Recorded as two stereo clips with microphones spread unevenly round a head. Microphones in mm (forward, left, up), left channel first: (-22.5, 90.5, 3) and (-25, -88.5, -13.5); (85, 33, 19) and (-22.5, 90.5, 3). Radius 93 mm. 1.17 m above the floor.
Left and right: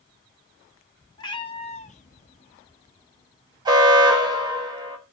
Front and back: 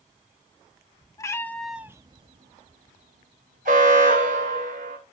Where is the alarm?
160° right, 3 m.